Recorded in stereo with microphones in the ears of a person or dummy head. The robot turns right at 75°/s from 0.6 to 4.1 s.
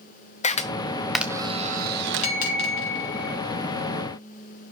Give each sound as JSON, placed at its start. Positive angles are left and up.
{"t": 0.4, "sound": "a camera shutter", "side_deg": 40, "distance_m": 0.6}
{"t": 2.2, "sound": "a bell", "azimuth_deg": 40, "distance_m": 3.0}